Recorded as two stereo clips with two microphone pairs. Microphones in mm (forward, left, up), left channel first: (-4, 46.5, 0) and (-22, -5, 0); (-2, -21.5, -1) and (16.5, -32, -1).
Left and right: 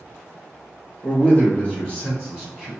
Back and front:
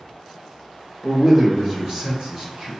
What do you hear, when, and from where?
1.0 s a man speaking: 30° left, 2.0 m; by 2.7 s straight ahead, 2 m